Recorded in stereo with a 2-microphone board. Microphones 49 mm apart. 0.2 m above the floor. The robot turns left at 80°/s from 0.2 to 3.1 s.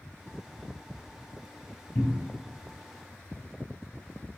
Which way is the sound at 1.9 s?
45° left (ahead or behind).